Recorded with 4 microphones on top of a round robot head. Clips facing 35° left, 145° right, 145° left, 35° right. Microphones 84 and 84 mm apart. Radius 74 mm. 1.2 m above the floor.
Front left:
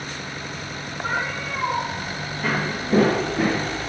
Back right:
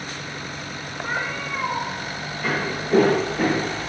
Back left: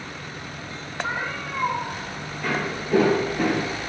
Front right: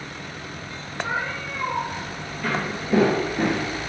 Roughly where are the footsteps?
Ahead left.